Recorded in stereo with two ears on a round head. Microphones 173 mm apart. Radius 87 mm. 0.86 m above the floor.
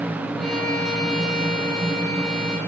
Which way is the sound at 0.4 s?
5° left (ahead or behind).